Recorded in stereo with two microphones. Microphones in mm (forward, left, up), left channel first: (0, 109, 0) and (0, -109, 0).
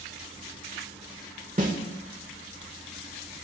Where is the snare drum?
40° right (ahead or behind), 1.3 m.